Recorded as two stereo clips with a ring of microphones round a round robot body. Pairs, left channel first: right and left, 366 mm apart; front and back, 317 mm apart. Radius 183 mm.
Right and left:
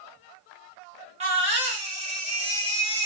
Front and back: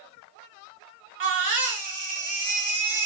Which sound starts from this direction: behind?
A baby crying, at 1.2 s.